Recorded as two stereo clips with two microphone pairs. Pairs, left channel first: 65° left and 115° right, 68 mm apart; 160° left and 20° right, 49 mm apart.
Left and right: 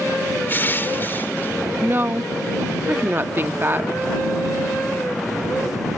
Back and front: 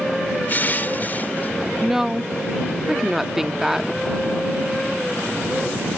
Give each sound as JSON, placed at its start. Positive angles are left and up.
{"t": 0.5, "sound": "crushing", "azimuth_deg": 115}
{"t": 1.8, "sound": "a woman speaking", "azimuth_deg": -95}